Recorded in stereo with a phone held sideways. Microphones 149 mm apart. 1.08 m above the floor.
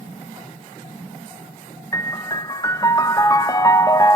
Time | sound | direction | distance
1.9 | a piano | 25° left (ahead or behind) | 0.9 m